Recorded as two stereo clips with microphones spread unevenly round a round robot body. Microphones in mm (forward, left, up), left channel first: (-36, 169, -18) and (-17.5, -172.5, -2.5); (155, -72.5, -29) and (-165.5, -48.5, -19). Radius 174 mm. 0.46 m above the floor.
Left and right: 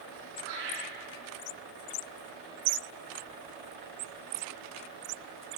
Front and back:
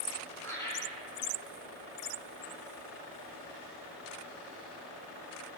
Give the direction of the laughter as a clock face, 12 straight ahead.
3 o'clock.